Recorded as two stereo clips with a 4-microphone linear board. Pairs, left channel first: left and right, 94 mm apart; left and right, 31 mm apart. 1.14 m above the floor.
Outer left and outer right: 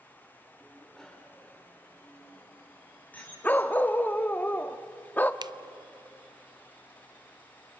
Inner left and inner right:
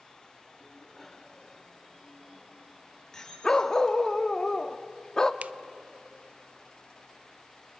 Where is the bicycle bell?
Centre (ahead or behind), 2.5 m; by 3.3 s 20° left (ahead or behind), 6 m.